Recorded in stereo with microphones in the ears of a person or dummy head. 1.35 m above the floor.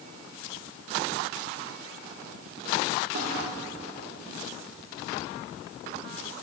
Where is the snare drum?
65° right (ahead or behind), 2.0 m.